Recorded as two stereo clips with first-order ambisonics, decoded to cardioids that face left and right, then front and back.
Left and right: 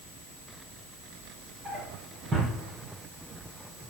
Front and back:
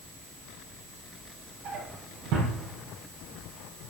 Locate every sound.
1.6 s a drawer: 160° right, 4.5 m